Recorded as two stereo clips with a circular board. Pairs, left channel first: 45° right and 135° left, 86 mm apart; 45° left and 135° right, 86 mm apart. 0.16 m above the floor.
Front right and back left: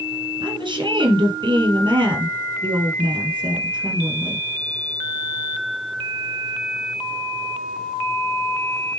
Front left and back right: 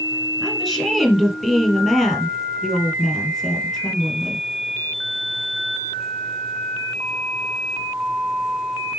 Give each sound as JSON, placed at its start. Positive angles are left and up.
{"t": 0.4, "sound": "a woman speaking", "azimuth_deg": 140, "distance_m": 4.0}